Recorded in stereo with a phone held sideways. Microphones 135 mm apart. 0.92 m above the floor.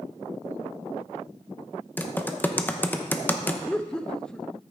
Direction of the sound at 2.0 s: 15° left (ahead or behind).